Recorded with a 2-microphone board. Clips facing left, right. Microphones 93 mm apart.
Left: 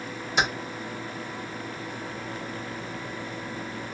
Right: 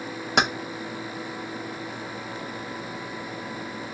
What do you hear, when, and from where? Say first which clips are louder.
0.4 s keys jangling: right 3 dB; 65° right (ahead or behind), 0.5 m